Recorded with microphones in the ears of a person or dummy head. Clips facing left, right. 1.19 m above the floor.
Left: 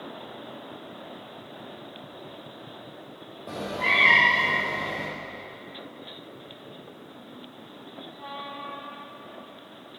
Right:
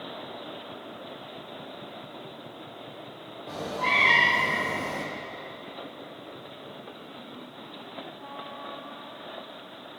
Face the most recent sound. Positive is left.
turn(degrees=-70)  # may be behind; listen again after turning